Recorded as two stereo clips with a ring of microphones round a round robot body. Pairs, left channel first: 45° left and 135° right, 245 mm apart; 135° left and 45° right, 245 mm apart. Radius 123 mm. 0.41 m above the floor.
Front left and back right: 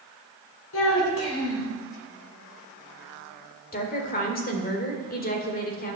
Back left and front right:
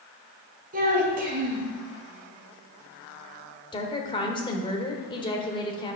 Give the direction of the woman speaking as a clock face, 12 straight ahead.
10 o'clock.